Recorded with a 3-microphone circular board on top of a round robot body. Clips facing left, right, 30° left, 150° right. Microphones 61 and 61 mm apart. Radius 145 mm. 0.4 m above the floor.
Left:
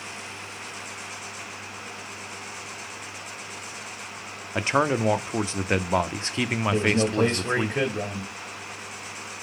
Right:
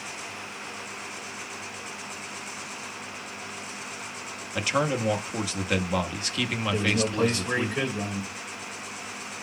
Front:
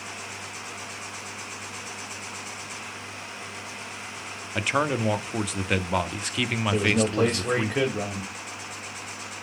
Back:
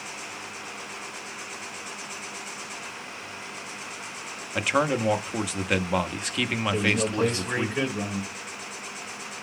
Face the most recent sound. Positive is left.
turn(degrees=50)